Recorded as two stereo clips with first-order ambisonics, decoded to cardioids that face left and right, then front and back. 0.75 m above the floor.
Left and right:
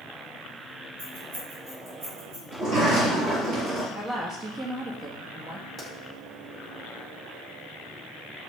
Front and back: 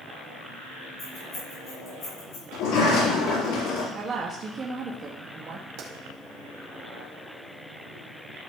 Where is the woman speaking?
140° right, 1.1 m.